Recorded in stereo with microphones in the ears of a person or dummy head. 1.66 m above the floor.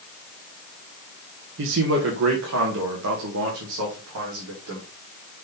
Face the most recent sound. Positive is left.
turn(degrees=-70)  # may be behind; listen again after turning